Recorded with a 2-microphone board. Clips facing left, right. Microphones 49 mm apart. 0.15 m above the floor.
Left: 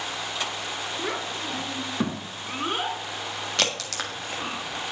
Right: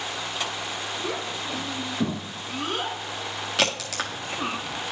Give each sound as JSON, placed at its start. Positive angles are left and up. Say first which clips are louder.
{"t": 1.0, "sound": "a child speaking", "louder": "left 1 dB", "side_deg": 50, "distance_m": 1.7}
{"t": 3.6, "sound": "a crack", "louder": "right 3 dB", "side_deg": -5, "distance_m": 1.4}